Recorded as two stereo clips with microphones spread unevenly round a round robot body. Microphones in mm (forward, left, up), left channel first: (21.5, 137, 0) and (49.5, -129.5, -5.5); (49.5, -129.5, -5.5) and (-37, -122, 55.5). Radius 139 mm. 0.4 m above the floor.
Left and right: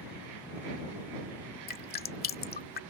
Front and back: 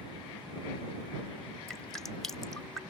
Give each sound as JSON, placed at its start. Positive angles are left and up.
{"t": 1.7, "sound": "dripping", "azimuth_deg": 45}